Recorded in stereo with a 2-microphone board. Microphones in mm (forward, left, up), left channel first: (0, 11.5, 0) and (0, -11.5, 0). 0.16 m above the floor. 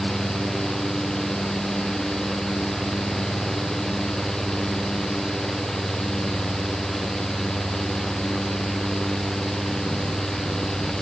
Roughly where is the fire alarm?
I don't hear a fire alarm.